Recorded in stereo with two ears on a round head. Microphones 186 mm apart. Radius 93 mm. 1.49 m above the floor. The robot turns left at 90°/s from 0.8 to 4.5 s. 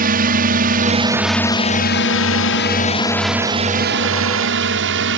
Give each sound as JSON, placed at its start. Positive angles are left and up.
{"t": 0.0, "sound": "a drone", "side_deg": -45}